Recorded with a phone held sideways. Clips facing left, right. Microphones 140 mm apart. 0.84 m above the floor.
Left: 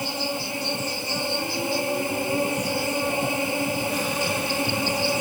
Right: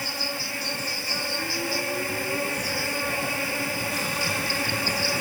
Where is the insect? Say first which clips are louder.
Left 5 dB; 20° left (ahead or behind).